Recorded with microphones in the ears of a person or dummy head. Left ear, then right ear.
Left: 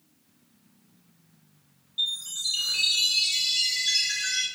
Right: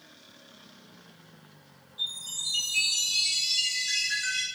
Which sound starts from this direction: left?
A chime, at 2.0 s.